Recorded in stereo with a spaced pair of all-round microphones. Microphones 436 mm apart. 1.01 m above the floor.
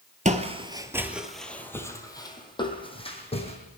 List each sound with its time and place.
0.2 s footsteps: 15° right (ahead or behind), 1.0 m; by 3.6 s 15° left (ahead or behind), 2.5 m